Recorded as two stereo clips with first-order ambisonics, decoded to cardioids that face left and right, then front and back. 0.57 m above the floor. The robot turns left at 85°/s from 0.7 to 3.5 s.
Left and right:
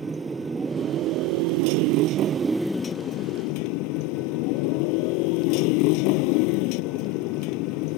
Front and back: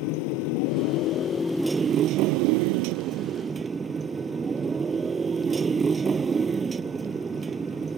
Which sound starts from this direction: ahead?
A motorcycle, at 0.0 s.